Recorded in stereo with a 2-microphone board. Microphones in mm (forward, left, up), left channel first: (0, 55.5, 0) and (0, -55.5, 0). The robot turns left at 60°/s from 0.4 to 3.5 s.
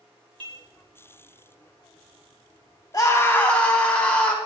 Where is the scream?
50° left, 1.9 m; by 4.4 s 15° left, 1.9 m.